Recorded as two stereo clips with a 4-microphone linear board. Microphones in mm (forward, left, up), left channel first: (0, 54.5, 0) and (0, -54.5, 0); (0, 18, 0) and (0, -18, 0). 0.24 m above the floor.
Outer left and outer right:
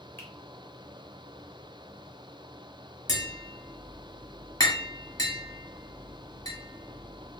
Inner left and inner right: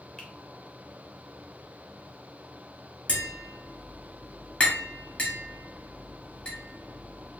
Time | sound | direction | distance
0.2 | a finger snap | 20° left (ahead or behind) | 1.0 m
3.1 | tapping | 35° left (ahead or behind) | 1.4 m